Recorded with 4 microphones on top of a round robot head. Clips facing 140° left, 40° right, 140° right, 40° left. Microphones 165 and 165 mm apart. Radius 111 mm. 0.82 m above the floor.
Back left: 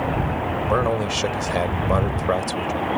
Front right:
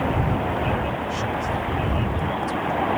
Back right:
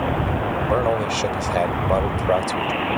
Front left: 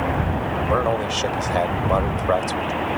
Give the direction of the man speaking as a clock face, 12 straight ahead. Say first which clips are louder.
Back left 5 dB, back right 1 dB; 7 o'clock.